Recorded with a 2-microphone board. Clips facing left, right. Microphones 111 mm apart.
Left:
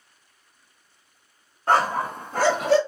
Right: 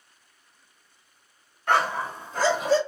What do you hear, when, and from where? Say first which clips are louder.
1.7 s a dog barking: left 3 dB; 35° left (ahead or behind), 0.6 m; by 2.8 s 70° left (ahead or behind), 0.9 m